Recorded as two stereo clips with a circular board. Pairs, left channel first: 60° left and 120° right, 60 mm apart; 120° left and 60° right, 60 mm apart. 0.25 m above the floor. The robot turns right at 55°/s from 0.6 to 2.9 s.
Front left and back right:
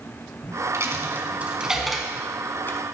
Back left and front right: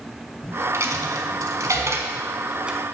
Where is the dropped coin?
95° right, 0.9 m; by 2.8 s 20° left, 0.9 m.